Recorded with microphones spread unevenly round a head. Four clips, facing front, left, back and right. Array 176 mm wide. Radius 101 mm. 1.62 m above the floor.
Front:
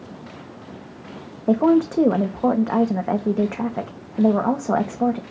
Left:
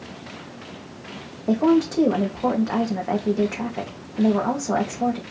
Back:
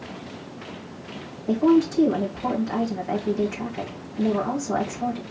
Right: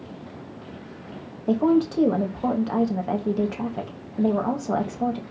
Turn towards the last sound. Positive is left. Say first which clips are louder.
# left 1 dB, front 2 dB
turn(degrees=10)